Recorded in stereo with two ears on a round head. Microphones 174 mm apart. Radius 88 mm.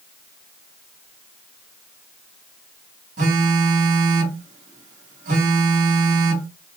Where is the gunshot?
No gunshot in this recording.